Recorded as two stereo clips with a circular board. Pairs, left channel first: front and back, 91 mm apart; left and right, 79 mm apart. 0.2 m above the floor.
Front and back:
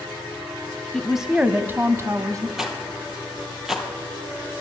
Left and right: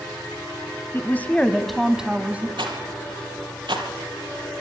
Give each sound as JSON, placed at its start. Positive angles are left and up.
{"t": 0.9, "sound": "a woman speaking", "azimuth_deg": 85, "distance_m": 1.1}
{"t": 2.6, "sound": "a rattle", "azimuth_deg": -95, "distance_m": 2.5}